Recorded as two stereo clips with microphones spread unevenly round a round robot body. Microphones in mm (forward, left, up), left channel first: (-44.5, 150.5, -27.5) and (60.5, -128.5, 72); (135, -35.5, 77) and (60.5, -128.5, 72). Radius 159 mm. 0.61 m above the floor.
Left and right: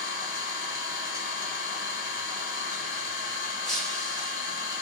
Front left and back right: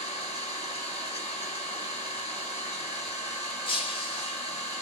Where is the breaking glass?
15° left, 0.6 m.